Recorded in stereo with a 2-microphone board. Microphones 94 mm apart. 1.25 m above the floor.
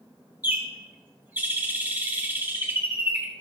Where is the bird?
20° right (ahead or behind), 0.9 m.